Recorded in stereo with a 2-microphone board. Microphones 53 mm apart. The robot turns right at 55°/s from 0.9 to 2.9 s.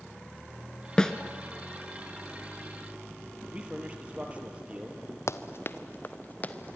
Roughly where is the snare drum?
Centre.